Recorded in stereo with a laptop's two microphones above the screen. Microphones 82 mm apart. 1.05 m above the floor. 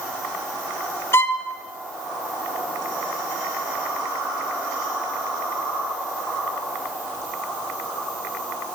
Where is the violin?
30° left (ahead or behind), 0.9 m.